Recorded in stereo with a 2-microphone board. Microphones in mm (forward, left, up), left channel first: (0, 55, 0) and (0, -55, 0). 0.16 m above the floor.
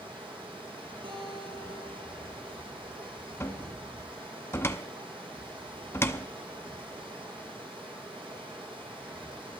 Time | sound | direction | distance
0.0 | running water | 50° right (ahead or behind) | 2.5 m
1.0 | a guitar | 60° right (ahead or behind) | 7.5 m
3.4 | a cupboard door | 20° left (ahead or behind) | 0.7 m